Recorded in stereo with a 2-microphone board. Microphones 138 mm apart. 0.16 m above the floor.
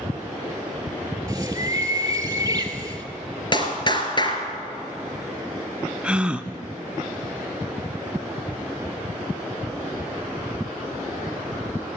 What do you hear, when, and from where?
1.3 s a bird: 20° right (ahead or behind), 2.5 m
3.5 s a clap: 35° left (ahead or behind), 2.5 m
6.0 s a gasp: 10° right (ahead or behind), 0.8 m